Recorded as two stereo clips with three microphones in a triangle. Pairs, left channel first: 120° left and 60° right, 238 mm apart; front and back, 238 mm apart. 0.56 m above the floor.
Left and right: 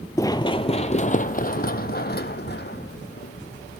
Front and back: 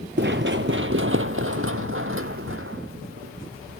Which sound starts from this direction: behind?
Running footsteps, at 0.2 s.